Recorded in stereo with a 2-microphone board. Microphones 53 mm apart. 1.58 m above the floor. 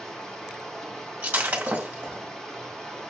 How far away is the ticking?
No ticking in this recording.